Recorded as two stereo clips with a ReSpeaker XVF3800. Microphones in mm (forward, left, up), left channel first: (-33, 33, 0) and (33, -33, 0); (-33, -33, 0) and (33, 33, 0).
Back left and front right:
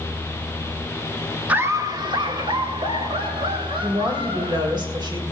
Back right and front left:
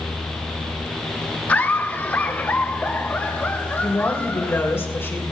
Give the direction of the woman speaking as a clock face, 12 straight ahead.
2 o'clock.